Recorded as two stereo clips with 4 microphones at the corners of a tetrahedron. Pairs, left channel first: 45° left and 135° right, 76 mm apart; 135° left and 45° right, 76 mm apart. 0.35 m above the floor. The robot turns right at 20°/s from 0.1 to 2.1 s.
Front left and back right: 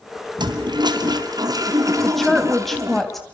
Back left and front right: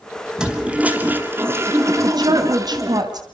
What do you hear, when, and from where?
0.4 s a toilet flushing: 125° right, 3 m; by 3.0 s 90° right, 3 m
2.0 s a woman speaking: 45° right, 2.5 m